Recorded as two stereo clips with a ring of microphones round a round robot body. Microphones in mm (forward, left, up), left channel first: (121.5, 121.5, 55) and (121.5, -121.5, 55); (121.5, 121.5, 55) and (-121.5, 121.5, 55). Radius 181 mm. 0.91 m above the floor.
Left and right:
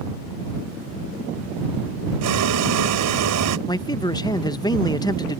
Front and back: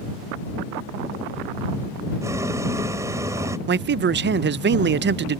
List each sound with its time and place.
2.2 s boiling: 100° right
3.7 s a man speaking: 160° left